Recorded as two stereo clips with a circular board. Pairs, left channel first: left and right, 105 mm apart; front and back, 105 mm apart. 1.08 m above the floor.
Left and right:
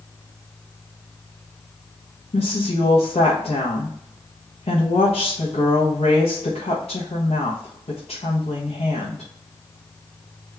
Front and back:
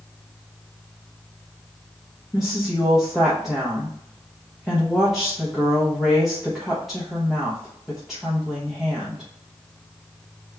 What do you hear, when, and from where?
2.3 s a woman speaking: 90° left, 1.0 m